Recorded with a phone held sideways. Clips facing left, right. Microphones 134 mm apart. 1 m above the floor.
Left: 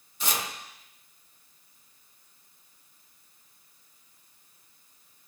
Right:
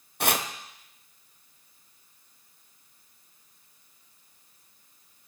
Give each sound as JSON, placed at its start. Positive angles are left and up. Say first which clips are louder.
{"t": 0.2, "sound": "chopping", "louder": "right 5 dB", "side_deg": -70, "distance_m": 0.5}